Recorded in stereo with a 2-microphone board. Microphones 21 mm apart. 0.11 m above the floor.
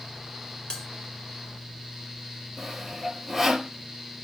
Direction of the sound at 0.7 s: 35° left (ahead or behind).